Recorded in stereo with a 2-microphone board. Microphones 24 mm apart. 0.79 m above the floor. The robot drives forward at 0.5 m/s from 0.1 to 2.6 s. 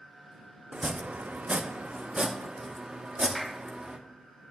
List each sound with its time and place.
0.7 s chopping: 55° right (ahead or behind), 0.6 m; by 4.0 s 40° right (ahead or behind), 0.9 m
3.4 s a clap: 5° right (ahead or behind), 0.7 m